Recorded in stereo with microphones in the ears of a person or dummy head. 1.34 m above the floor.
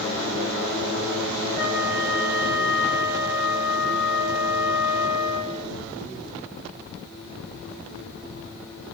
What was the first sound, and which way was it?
A flute, 5° right (ahead or behind).